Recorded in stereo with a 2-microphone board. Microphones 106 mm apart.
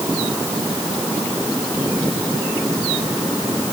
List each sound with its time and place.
Only background noise.